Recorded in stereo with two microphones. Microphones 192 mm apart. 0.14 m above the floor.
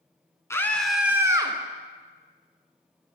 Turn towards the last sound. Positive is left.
turn(degrees=-25)  # may be behind; listen again after turning